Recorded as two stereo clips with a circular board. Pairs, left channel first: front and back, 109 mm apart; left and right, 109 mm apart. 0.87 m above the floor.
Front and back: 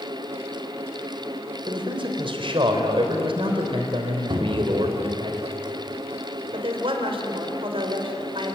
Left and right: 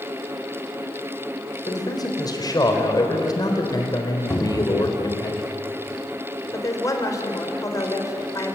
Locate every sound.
1.7 s a man speaking: 145° left, 4 m
4.3 s a cupboard door: 155° left, 3 m
6.5 s a woman speaking: 150° left, 4 m